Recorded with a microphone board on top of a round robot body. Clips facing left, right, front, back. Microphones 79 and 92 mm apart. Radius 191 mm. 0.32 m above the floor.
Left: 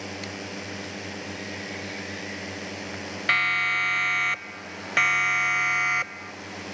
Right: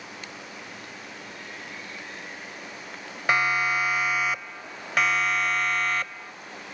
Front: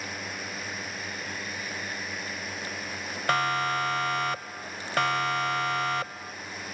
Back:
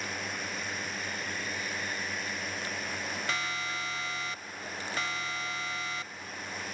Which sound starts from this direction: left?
A drone, at 0.0 s.